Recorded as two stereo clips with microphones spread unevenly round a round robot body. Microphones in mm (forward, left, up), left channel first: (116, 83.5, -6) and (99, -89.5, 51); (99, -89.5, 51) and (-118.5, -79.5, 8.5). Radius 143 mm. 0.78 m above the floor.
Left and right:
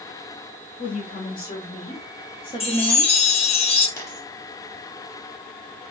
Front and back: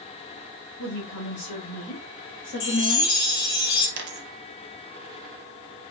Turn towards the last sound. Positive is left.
turn(degrees=180)